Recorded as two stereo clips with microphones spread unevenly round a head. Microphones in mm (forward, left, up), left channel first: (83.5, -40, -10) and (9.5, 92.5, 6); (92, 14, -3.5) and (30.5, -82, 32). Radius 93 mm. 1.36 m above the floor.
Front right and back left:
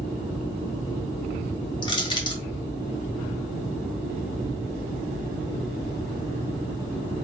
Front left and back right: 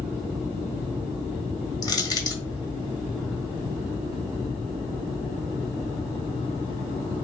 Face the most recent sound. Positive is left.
turn(degrees=-5)